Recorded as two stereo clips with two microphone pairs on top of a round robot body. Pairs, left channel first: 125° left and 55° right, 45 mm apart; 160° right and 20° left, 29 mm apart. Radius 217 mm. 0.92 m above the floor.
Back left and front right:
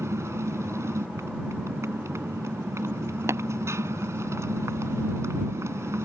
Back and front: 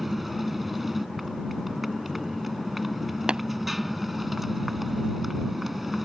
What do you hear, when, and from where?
0.0 s a motorcycle: 65° right
3.3 s tapping: 40° right